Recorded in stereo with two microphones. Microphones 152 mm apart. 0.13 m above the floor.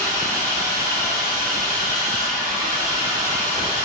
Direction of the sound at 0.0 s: 20° right (ahead or behind).